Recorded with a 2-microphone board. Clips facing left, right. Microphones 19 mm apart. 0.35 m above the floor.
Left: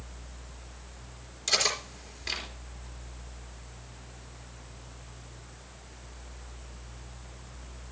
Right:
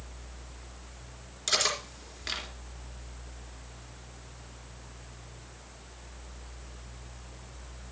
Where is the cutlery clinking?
20° right (ahead or behind), 3.5 m.